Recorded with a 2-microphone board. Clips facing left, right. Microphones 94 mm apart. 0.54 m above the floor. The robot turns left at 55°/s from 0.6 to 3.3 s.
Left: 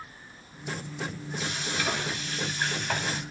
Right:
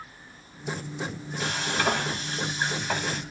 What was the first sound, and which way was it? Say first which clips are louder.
Frying: right 5 dB; 90° right.